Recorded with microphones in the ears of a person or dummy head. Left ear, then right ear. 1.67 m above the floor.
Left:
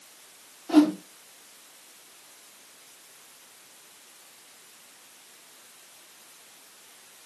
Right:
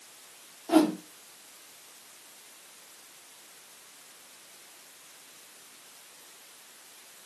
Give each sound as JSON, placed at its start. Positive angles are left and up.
{"t": 0.7, "sound": "a whoosh", "side_deg": -20, "distance_m": 0.7}